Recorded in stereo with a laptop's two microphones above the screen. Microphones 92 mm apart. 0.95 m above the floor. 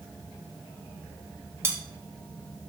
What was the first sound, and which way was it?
Cutlery clinking, 25° right (ahead or behind).